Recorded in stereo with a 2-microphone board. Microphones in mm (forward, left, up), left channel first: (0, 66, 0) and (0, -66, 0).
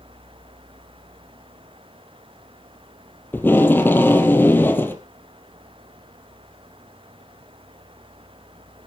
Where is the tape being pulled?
15° left (ahead or behind), 1.9 m.